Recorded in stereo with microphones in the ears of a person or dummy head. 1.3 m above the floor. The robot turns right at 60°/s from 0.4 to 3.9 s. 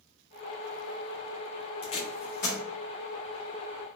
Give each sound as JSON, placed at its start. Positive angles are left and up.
{"t": 1.8, "sound": "tape being pulled", "side_deg": 30, "distance_m": 0.7}